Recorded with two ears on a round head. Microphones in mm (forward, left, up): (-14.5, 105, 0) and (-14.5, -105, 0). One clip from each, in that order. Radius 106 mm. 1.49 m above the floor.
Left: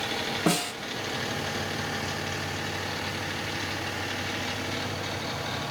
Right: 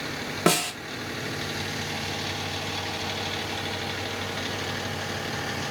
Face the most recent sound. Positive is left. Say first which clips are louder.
# right 6 dB
turn(degrees=-55)  # may be behind; listen again after turning